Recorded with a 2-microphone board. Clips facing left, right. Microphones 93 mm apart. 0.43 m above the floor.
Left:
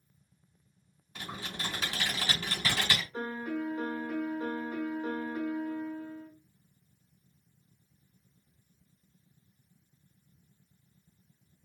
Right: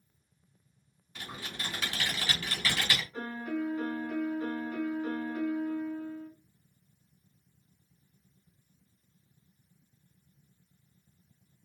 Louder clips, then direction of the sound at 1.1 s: Left 2 dB; 30° left (ahead or behind).